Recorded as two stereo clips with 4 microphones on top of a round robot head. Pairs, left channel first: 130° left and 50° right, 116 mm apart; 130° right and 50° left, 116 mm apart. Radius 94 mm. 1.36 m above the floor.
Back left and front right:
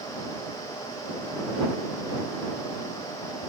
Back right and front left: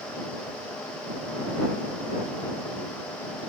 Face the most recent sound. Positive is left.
No sound to turn to.